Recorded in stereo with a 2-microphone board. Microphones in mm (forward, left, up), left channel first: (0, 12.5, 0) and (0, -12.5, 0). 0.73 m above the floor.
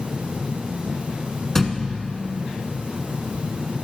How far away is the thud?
About 1.0 m.